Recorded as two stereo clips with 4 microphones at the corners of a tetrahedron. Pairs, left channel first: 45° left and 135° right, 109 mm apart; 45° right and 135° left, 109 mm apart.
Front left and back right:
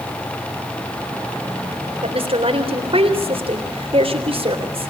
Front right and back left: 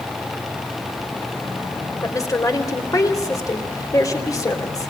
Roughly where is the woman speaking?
Right.